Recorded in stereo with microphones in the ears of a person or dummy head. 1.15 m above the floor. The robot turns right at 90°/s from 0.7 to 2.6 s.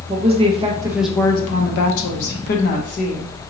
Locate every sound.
0.1 s a woman speaking: 35° right, 1.1 m; by 3.3 s 135° left, 1.1 m